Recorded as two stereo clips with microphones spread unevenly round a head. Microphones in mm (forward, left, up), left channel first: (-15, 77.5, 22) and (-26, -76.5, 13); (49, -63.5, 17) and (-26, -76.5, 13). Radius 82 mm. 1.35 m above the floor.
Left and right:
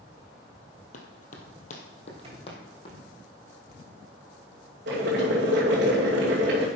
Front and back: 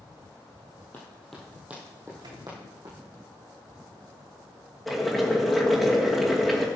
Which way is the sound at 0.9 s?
75° left.